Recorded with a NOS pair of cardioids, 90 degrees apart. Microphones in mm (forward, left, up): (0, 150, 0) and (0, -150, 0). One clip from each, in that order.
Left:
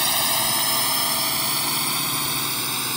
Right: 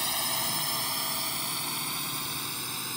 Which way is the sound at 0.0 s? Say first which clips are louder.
Left 8 dB; 60° left.